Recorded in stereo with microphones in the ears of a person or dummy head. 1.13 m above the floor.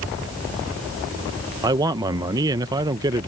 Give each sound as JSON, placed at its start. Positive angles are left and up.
{"t": 1.6, "sound": "a man speaking", "side_deg": -20}